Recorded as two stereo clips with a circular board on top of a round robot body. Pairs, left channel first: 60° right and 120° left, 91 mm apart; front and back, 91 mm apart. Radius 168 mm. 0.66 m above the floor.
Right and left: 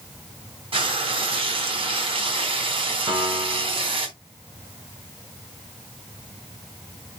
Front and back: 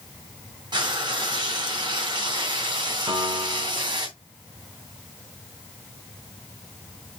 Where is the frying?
140° left, 3 m.